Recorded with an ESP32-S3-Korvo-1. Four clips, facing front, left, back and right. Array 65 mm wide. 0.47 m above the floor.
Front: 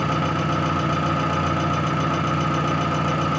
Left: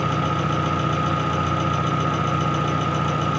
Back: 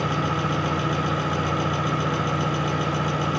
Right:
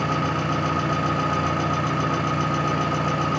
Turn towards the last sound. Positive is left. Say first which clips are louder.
# left 1 dB, front 2 dB
turn(degrees=-20)